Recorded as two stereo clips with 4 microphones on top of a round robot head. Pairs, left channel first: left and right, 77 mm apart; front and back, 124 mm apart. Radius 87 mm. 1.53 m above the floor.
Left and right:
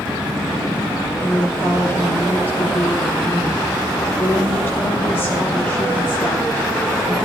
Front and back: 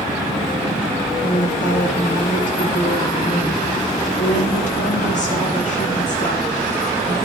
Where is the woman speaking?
20° left, 3.5 m.